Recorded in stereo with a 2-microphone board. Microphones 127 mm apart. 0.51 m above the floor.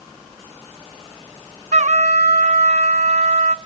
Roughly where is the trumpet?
Right.